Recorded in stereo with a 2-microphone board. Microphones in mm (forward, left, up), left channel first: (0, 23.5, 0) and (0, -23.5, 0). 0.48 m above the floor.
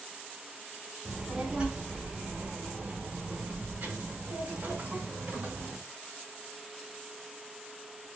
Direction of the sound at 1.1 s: 20° right (ahead or behind).